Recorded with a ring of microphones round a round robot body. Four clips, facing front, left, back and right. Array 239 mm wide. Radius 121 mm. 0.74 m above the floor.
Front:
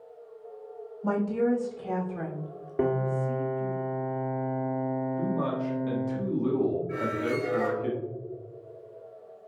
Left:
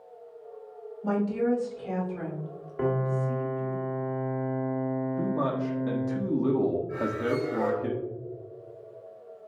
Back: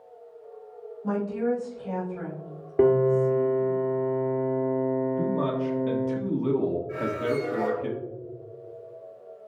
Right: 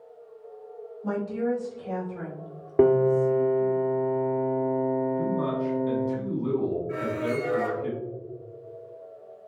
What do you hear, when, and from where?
1.0 s a woman speaking: 15° left, 3 m
2.8 s a piano: 100° right, 1.9 m
5.2 s a man speaking: 115° left, 1.5 m
6.9 s a squeak: 75° right, 2.5 m